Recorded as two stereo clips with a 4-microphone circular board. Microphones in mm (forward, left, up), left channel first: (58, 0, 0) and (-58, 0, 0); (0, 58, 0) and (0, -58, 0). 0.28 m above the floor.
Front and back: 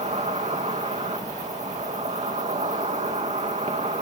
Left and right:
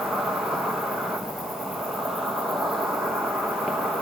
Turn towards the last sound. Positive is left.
turn(degrees=180)